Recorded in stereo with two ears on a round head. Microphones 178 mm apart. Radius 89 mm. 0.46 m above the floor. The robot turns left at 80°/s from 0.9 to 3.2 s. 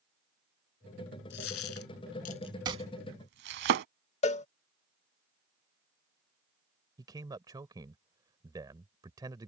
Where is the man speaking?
20° right (ahead or behind).